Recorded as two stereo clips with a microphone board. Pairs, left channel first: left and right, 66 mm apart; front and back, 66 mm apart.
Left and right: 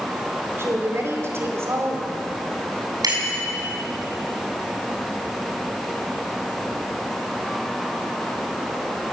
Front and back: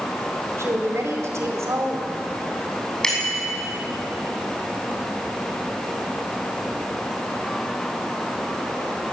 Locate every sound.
0.6 s a woman speaking: 140° right, 4 m
3.0 s a bicycle bell: 80° right, 6.5 m